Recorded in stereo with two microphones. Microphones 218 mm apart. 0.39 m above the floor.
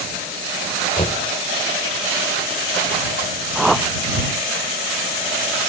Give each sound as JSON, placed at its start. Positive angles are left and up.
{"t": 1.0, "sound": "knocking", "side_deg": 30}
{"t": 3.5, "sound": "a whoosh", "side_deg": 0}